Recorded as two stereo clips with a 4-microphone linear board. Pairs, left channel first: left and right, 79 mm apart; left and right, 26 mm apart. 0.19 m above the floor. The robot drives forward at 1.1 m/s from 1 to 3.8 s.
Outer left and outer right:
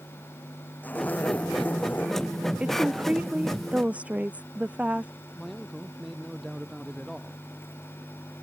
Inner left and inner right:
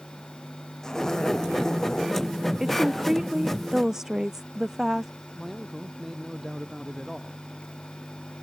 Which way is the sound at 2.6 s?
15° right (ahead or behind).